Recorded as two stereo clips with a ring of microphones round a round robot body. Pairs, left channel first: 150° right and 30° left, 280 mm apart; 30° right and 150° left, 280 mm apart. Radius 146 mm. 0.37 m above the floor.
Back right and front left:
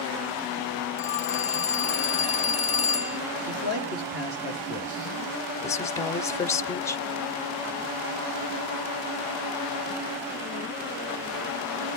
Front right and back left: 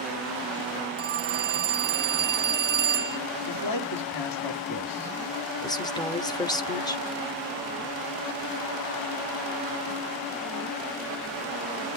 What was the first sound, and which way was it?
A phone ringing, 165° left.